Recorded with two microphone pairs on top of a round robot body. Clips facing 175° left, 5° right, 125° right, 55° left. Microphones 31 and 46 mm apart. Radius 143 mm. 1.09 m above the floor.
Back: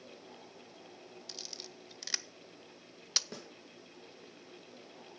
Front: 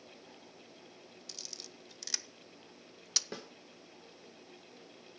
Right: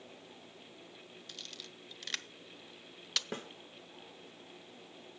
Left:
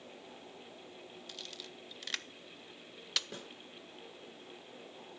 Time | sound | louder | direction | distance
1.3 | a camera shutter | back 1 dB, even | 140° left | 0.8 m
3.3 | a snare drum | front 2 dB, right 5 dB | 80° right | 1.9 m